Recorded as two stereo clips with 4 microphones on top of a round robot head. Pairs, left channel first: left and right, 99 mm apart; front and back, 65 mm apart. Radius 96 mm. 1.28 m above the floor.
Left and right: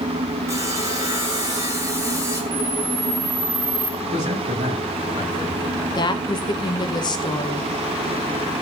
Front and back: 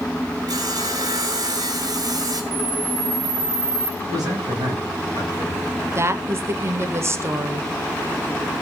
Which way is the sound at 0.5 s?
155° right.